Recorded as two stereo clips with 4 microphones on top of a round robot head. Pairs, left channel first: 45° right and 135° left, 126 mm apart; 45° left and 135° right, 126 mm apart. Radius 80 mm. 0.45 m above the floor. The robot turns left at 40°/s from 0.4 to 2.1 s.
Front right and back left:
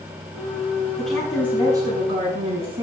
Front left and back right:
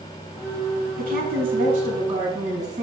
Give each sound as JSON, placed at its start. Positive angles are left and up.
{"t": 1.0, "sound": "a woman speaking", "azimuth_deg": -130, "distance_m": 4.5}